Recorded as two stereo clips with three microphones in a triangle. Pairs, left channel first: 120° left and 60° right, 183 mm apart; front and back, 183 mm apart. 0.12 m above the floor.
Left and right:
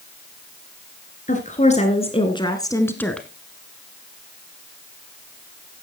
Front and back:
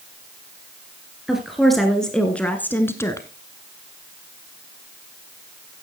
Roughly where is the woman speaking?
Left.